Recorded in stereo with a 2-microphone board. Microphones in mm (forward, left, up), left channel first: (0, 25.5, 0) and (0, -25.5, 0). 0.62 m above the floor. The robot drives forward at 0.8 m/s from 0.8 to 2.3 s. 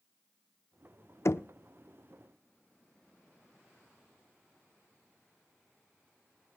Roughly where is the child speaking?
No child speaking in this recording.